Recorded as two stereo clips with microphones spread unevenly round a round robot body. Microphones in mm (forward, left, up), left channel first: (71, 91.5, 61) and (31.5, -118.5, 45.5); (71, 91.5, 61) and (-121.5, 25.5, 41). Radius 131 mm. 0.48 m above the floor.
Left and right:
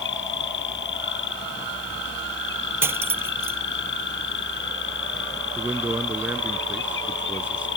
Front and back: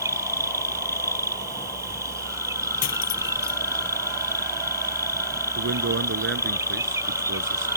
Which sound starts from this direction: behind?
A man speaking, at 5.6 s.